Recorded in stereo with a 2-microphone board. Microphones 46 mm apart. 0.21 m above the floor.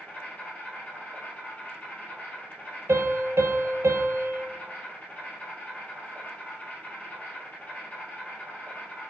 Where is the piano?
70° right (ahead or behind), 1.0 m.